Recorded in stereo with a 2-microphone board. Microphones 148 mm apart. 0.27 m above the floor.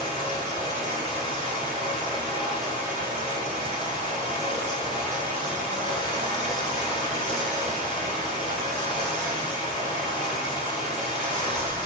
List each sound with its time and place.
0.0 s running water: 50° right (ahead or behind), 1.1 m